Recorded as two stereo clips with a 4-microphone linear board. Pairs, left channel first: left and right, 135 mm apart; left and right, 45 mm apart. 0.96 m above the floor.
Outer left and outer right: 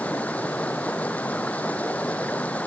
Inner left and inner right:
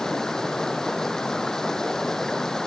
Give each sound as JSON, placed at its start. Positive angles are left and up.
{"t": 0.0, "sound": "running water", "side_deg": 10}